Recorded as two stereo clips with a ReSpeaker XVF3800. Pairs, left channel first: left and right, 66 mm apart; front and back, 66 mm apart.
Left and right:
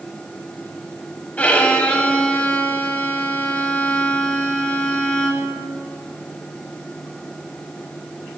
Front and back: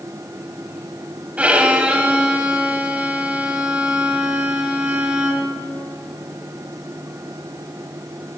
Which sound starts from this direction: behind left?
A violin, at 1.4 s.